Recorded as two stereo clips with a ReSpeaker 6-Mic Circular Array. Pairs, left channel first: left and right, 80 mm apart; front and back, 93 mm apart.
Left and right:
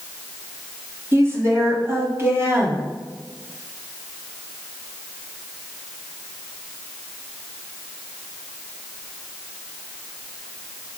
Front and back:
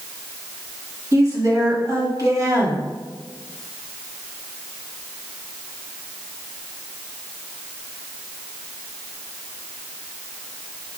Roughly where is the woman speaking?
Behind right.